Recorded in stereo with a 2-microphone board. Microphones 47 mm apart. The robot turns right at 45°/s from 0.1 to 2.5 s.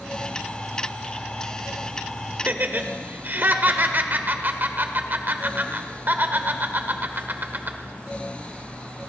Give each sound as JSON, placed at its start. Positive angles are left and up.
{"t": 2.5, "sound": "laughter", "side_deg": -40, "distance_m": 1.6}